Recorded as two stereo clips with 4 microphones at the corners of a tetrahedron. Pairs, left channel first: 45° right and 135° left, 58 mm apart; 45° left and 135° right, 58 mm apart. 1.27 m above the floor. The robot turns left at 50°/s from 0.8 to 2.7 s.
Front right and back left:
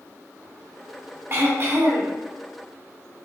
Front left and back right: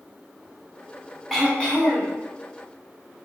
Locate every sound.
1.3 s throat clearing: 130° left, 0.9 m; by 2.1 s 85° left, 0.9 m